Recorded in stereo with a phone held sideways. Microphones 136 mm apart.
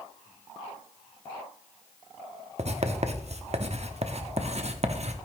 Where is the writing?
50° right (ahead or behind), 0.9 m.